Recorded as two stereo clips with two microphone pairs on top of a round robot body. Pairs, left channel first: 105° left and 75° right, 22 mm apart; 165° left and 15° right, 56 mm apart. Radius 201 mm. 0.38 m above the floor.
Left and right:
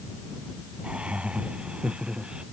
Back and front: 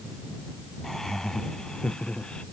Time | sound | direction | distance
0.8 | laughter | 110° right | ?